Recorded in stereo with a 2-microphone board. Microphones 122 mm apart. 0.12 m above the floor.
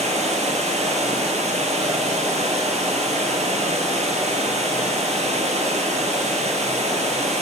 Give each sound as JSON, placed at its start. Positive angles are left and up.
{"t": 0.0, "sound": "running water", "side_deg": -70, "distance_m": 0.8}